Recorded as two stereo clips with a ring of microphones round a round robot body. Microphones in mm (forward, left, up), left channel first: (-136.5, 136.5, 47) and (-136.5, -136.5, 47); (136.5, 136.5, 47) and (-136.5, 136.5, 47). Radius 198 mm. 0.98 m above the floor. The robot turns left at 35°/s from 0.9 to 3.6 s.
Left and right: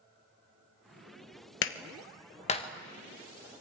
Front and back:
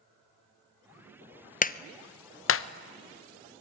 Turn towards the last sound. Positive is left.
turn(degrees=-10)